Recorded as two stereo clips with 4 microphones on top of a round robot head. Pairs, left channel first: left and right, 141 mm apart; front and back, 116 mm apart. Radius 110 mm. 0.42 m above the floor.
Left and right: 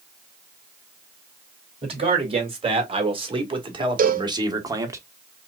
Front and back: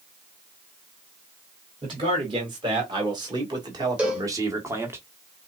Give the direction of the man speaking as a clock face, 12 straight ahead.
4 o'clock.